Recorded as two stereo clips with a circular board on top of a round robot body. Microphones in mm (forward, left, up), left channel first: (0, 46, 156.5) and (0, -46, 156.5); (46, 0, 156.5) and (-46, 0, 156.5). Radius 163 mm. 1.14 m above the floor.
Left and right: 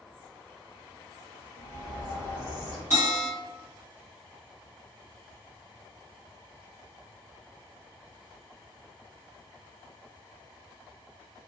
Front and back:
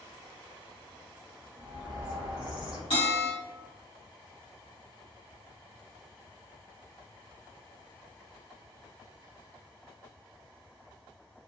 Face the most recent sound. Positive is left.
turn(degrees=-30)